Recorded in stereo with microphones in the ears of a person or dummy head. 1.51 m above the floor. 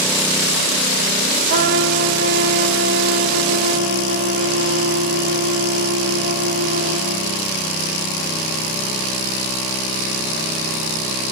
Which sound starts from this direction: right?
A trumpet, at 1.5 s.